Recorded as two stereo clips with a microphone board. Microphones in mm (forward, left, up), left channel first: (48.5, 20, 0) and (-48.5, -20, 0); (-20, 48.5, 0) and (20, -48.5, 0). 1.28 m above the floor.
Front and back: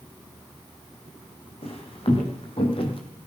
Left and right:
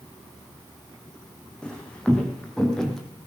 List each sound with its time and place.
1.6 s footsteps: 35° left, 3 m; by 3.0 s 25° left, 2.5 m